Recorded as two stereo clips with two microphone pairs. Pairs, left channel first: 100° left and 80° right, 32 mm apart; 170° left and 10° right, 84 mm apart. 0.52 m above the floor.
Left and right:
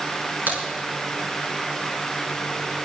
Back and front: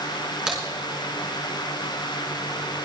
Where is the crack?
95° right, 5.5 m.